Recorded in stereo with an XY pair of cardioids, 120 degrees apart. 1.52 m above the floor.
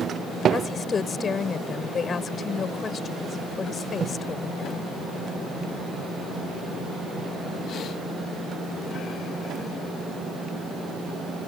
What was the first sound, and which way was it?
A woman speaking, 35° left.